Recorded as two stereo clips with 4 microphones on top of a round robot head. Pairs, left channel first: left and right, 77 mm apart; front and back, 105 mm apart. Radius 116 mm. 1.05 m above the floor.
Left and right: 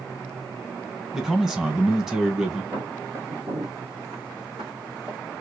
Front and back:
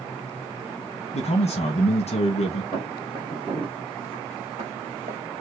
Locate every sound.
1.1 s a man speaking: 5° right, 0.9 m
2.7 s footsteps: 35° right, 1.1 m; by 5.2 s 145° right, 1.6 m